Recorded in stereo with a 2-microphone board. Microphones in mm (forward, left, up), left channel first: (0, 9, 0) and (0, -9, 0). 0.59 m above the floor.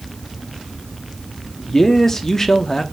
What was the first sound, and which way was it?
A man speaking, 20° left (ahead or behind).